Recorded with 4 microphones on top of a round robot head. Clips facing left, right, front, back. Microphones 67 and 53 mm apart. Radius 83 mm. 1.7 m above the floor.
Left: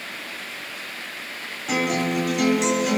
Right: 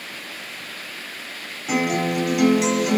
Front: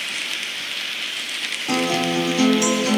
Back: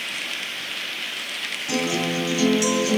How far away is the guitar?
About 3.5 m.